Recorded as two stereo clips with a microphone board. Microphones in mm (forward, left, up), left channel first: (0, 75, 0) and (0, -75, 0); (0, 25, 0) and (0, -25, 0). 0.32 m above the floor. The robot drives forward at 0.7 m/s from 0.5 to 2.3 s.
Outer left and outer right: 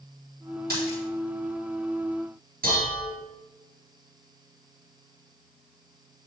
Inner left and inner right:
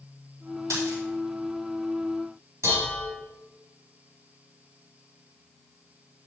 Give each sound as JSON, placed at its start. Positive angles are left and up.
{"t": 0.7, "sound": "a dropped coin", "side_deg": -85, "distance_m": 4.5}
{"t": 2.6, "sound": "dishes clattering", "side_deg": -70, "distance_m": 3.5}